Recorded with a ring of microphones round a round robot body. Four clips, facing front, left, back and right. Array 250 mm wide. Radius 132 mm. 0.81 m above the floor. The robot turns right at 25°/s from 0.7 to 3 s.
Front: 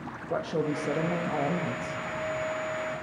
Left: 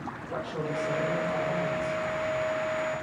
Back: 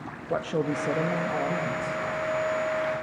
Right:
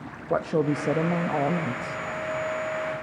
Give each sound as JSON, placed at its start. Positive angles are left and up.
{"t": 0.3, "sound": "a woman speaking", "azimuth_deg": -100, "distance_m": 1.0}